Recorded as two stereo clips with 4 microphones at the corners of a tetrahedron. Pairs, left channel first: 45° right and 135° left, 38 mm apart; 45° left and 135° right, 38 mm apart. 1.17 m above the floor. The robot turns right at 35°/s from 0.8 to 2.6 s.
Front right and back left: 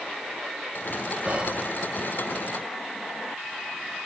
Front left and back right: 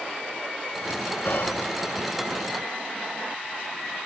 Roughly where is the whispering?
Left.